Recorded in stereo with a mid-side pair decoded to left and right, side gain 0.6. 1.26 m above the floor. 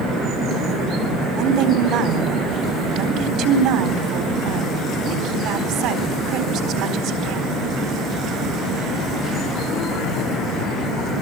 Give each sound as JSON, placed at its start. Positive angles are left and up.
{"t": 1.4, "sound": "a woman speaking", "azimuth_deg": -65, "distance_m": 4.0}